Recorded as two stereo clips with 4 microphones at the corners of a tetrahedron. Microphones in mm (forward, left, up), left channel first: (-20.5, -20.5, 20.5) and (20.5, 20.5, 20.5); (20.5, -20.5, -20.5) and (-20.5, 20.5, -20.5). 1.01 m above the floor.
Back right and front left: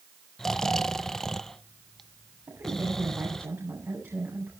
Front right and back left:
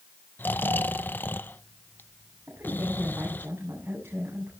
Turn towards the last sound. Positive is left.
turn(degrees=80)